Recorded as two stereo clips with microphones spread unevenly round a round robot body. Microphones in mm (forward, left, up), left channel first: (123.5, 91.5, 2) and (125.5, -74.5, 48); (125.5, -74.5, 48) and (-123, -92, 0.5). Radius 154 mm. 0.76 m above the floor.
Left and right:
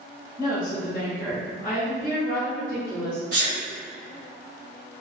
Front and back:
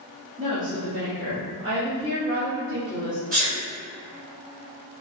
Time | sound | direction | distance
0.4 | a woman speaking | 140° left | 1.3 m
3.3 | a sneeze | 140° right | 1.6 m